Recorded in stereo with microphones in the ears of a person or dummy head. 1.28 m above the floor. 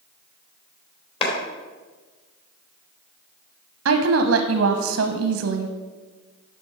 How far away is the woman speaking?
About 0.9 m.